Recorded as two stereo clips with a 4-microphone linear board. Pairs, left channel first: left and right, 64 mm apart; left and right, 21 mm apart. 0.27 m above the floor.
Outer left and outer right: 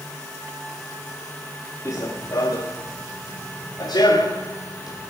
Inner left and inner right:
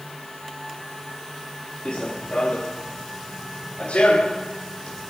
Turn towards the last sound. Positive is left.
turn(degrees=75)  # may be behind; listen again after turning